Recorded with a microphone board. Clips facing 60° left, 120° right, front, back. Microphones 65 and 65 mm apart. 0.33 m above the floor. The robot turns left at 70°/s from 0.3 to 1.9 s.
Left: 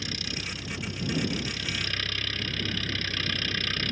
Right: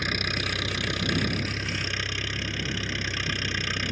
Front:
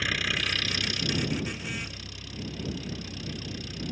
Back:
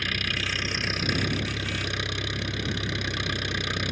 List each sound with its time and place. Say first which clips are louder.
0.0 s an engine running: right 7 dB, even; 85° right; by 3.9 s 165° left